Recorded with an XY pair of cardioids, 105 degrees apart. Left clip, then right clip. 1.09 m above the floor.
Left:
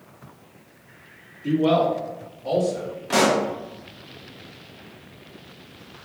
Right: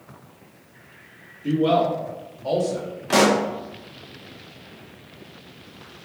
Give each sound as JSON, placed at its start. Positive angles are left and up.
{"t": 1.4, "sound": "a man speaking", "azimuth_deg": 0, "distance_m": 1.3}
{"t": 3.1, "sound": "a pop", "azimuth_deg": -20, "distance_m": 0.7}